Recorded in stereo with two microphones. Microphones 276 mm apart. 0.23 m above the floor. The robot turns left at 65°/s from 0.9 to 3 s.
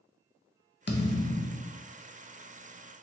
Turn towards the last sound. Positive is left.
turn(degrees=-80)